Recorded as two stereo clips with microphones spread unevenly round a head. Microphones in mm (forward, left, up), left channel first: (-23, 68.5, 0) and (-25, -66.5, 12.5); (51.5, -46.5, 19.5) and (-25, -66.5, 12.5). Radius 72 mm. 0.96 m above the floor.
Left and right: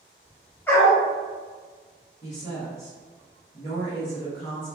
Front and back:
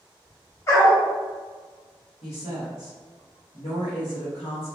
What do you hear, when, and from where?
0.7 s a dog barking: 10° left, 0.7 m
2.2 s a woman speaking: 30° left, 0.9 m